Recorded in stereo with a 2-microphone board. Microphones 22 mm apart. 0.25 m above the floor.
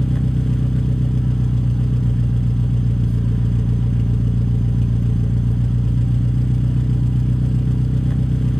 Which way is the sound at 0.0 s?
35° left (ahead or behind).